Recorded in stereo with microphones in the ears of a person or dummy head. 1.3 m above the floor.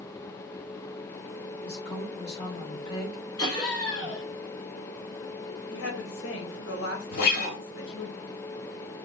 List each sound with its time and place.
1.6 s a woman speaking: 25° left (ahead or behind), 1.9 m
3.4 s laughter: 20° left (ahead or behind), 2.5 m
5.7 s a woman speaking: 55° left (ahead or behind), 1.2 m
7.1 s a guitar: 45° left (ahead or behind), 1.7 m